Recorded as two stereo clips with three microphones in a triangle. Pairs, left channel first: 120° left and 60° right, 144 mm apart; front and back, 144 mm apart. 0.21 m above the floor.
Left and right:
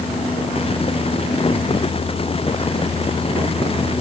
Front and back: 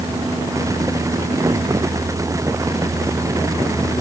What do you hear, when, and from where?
Only background noise.